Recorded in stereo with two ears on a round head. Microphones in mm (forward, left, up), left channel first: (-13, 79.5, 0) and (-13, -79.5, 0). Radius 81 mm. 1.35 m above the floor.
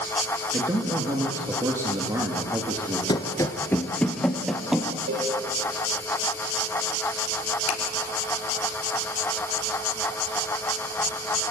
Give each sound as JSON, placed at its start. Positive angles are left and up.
{"t": 0.5, "sound": "a man speaking", "side_deg": -15, "distance_m": 3.0}
{"t": 3.1, "sound": "running footsteps", "side_deg": 25, "distance_m": 1.4}
{"t": 5.1, "sound": "a cowbell", "side_deg": -70, "distance_m": 8.5}
{"t": 7.7, "sound": "a finger snap", "side_deg": 75, "distance_m": 3.0}